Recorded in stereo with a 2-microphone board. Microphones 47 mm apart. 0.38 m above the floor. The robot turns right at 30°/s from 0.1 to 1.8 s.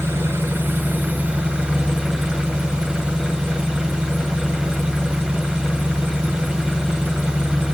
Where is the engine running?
65° right, 0.8 m; by 7.7 s 15° right, 0.8 m.